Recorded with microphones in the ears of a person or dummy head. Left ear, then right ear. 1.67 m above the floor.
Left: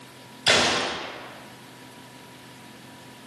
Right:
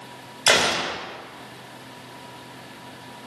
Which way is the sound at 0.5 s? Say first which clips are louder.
Right 1 dB; 35° right (ahead or behind).